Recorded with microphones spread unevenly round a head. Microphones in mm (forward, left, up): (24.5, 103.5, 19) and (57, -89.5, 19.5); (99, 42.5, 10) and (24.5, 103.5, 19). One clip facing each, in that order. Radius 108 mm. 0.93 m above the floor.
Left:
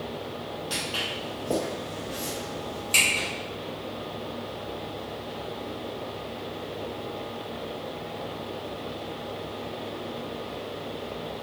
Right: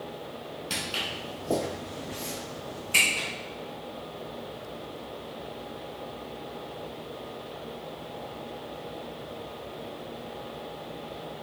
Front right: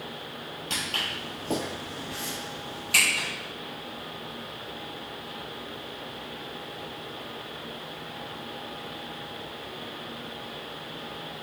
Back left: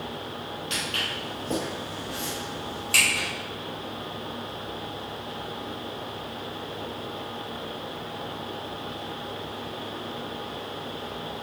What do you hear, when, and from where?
0.7 s footsteps: 40° right, 1.1 m; by 3.3 s 130° left, 1.6 m